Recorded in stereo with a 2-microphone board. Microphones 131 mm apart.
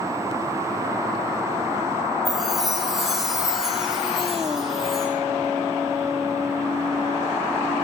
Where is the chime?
Centre (ahead or behind), 9.5 m.